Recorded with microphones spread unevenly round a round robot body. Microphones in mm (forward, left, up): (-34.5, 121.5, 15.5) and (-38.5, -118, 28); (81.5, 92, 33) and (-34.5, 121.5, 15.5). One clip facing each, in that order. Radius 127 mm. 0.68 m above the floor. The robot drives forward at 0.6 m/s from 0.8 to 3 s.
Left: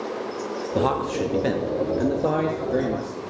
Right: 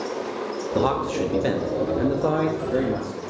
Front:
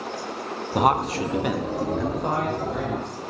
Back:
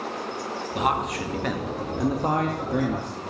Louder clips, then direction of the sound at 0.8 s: Even, front 5 dB; straight ahead.